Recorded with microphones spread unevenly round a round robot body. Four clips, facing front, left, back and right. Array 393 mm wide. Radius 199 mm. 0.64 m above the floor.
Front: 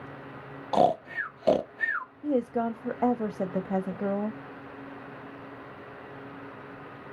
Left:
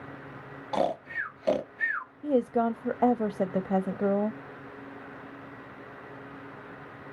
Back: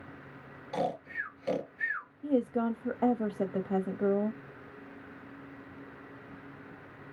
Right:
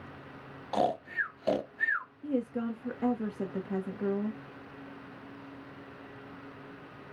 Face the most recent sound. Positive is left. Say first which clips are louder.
# left 8 dB, front 1 dB
turn(degrees=65)